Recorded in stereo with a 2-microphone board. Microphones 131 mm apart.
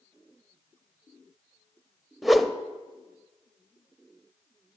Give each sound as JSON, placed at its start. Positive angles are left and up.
{"t": 2.2, "sound": "a whoosh", "side_deg": 0, "distance_m": 0.6}